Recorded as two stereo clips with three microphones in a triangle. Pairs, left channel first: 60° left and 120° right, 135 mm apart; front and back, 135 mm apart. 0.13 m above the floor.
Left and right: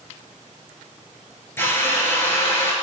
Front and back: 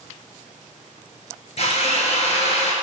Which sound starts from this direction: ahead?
A drill, at 1.6 s.